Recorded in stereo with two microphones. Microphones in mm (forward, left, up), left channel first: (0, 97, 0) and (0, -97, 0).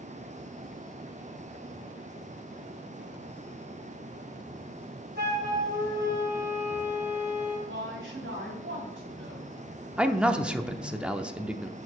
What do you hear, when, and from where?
5.2 s a flute: 55° right (ahead or behind), 4 m
7.7 s a woman speaking: 75° right (ahead or behind), 3.5 m
10.0 s a man speaking: 5° right (ahead or behind), 0.7 m